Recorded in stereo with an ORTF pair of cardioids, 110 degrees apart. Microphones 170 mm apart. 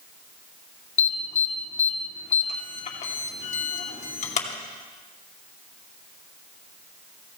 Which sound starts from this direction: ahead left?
An alarm, at 1.0 s.